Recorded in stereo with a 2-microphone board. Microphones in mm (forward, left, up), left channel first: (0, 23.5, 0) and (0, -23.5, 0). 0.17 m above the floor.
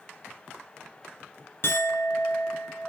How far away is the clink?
About 1.2 m.